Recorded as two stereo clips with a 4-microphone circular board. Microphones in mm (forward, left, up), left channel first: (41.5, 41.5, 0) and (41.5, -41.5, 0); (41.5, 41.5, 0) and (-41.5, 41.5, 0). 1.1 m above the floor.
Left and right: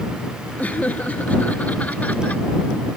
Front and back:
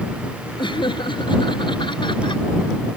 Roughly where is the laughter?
Ahead.